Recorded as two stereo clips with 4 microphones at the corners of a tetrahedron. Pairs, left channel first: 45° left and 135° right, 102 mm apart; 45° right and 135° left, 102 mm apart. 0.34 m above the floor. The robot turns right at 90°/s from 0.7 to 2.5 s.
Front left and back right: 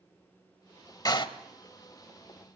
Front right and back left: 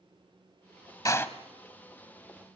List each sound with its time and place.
1.1 s a door slam: straight ahead, 1.0 m; by 1.3 s 20° left, 1.0 m